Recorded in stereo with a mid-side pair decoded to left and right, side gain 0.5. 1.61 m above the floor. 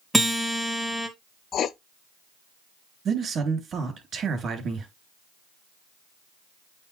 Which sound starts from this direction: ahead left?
Writing, at 1.5 s.